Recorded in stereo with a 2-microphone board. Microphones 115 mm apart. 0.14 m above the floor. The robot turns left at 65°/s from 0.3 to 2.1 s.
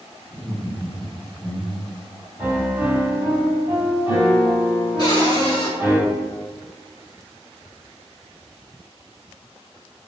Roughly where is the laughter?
Left.